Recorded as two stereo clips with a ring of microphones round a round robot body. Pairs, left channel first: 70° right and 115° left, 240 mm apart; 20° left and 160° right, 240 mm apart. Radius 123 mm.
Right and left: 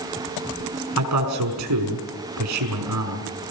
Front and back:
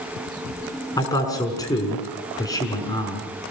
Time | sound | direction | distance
1.0 | a man speaking | 100° left | 5.5 m